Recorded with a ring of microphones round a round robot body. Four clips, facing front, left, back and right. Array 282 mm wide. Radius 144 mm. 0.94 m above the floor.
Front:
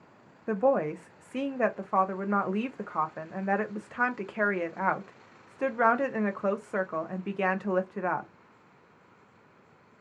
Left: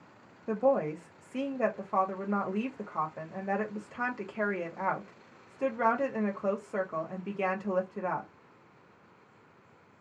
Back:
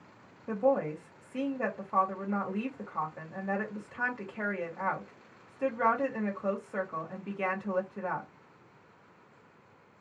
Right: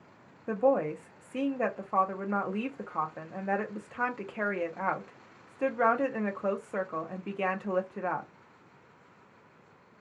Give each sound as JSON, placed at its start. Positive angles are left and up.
{"t": 0.5, "sound": "a woman speaking", "azimuth_deg": -10, "distance_m": 0.5}